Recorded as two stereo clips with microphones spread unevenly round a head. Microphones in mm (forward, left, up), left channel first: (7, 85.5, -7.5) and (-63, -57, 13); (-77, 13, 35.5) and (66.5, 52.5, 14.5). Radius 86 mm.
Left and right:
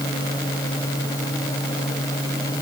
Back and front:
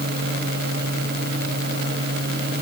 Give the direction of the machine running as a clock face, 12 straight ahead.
12 o'clock.